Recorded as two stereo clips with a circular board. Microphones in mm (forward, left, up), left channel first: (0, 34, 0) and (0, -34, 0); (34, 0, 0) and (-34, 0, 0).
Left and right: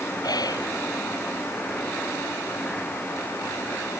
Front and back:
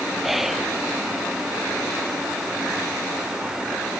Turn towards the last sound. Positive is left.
turn(degrees=95)